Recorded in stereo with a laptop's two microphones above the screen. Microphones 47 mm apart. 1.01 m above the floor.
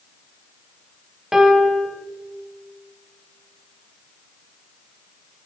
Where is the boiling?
No boiling in this recording.